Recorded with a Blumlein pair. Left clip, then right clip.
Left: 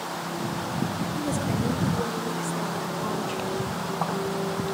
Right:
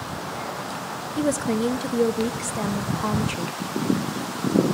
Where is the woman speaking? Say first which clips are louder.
Right 8 dB; 25° right, 0.6 m.